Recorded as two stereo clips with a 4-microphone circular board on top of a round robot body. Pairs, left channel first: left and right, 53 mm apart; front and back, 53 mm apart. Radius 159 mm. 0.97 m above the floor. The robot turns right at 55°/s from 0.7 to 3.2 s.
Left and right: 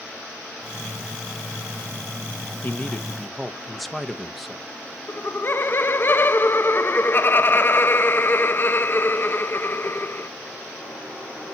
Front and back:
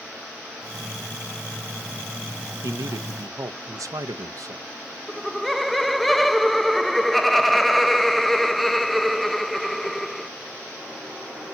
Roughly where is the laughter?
Left.